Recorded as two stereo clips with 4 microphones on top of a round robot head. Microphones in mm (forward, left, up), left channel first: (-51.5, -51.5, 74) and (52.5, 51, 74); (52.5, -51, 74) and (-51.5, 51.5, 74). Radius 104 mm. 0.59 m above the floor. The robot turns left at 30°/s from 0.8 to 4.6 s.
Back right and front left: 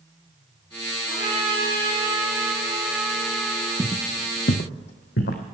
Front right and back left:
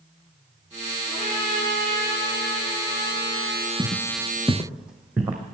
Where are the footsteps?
15° right, 0.7 m; by 5.4 s 145° right, 1.8 m.